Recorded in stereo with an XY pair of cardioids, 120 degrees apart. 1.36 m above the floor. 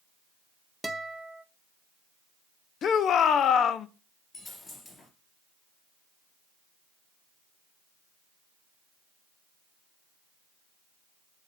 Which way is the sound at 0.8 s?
5° right.